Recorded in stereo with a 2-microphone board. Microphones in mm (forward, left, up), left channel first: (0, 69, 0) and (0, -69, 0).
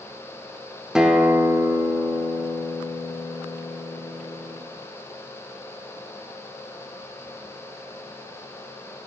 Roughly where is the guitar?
Centre.